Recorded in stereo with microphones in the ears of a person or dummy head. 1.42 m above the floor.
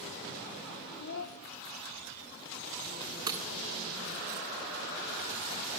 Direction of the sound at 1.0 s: 55° left (ahead or behind).